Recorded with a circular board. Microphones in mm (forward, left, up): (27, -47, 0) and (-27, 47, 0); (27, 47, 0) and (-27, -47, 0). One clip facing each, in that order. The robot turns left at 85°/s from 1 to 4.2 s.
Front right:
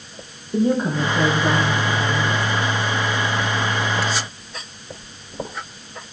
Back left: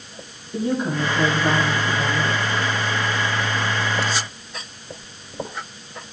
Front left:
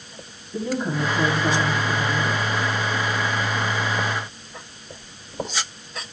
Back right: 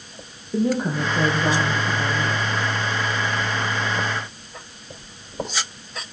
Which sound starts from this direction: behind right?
A woman speaking, at 0.5 s.